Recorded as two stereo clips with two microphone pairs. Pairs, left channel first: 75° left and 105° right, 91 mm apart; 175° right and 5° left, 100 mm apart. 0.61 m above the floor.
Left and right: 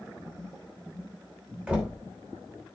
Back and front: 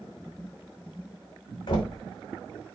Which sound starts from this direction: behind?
Knocking, at 1.7 s.